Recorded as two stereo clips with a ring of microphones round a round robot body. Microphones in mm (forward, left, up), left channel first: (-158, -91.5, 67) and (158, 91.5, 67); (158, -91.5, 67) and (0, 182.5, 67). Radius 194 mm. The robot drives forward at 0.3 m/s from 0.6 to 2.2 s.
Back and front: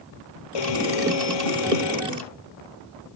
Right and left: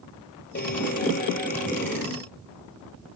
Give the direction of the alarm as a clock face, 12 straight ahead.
4 o'clock.